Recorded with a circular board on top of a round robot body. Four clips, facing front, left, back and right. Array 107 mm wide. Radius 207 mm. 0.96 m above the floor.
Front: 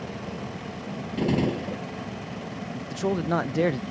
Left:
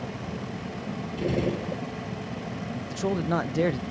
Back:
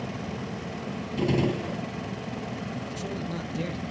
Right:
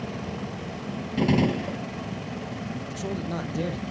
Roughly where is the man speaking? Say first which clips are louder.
Left 7 dB, front 8 dB; ahead left.